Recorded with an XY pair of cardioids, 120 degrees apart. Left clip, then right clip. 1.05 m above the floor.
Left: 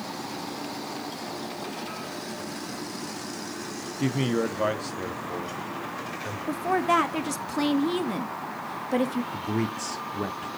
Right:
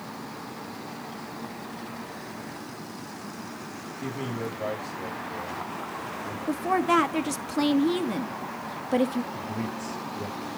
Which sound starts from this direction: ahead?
A woman speaking, at 6.5 s.